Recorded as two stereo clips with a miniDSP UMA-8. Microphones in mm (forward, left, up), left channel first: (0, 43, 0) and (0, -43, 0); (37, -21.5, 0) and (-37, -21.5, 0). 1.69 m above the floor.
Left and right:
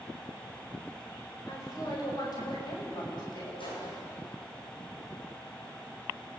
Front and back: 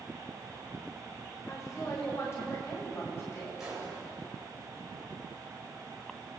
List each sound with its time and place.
1.5 s a woman speaking: 45° left, 9.5 m; by 3.5 s 55° left, 12 m
3.6 s a gunshot: 95° left, 10 m